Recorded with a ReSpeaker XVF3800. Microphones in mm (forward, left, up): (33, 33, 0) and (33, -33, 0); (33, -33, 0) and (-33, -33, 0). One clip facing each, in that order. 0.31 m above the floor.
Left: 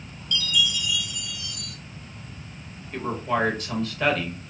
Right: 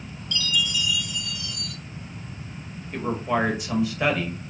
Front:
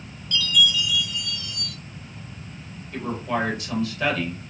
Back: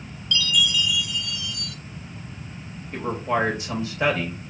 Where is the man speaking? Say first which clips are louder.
Right 1 dB, back 2 dB; 150° right, 0.9 m.